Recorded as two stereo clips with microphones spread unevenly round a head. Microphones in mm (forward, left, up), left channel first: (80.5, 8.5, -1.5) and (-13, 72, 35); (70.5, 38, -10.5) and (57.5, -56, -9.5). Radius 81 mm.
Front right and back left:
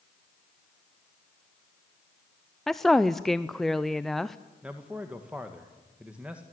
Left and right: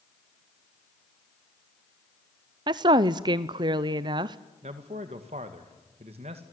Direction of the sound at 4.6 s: 135° right.